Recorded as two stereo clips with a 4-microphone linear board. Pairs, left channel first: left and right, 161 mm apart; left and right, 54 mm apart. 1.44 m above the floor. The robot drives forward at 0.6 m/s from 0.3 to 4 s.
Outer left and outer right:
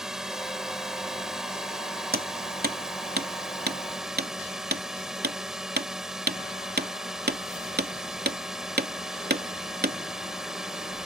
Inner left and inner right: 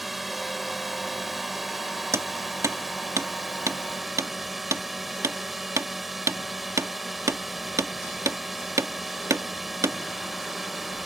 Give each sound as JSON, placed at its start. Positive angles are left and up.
{"t": 0.0, "sound": "a drone", "side_deg": -5}
{"t": 2.1, "sound": "hammering", "side_deg": -70}